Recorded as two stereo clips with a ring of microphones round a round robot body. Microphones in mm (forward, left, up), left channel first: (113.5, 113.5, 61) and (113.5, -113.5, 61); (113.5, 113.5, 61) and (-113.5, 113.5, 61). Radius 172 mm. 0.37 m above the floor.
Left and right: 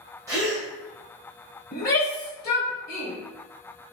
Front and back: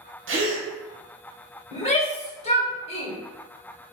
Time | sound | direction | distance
0.3 | a gasp | 165° right | 1.0 m
1.7 | a shout | 55° left | 1.9 m